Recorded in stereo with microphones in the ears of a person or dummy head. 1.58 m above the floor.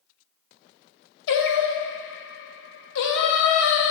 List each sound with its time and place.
1.3 s singing: 70° left (ahead or behind), 0.5 m